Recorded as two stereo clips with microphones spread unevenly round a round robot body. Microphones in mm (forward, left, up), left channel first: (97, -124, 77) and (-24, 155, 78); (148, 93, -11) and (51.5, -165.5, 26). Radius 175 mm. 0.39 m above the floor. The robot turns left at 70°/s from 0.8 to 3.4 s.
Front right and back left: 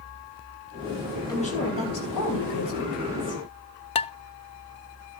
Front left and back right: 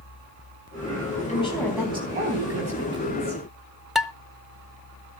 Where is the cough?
No cough in this recording.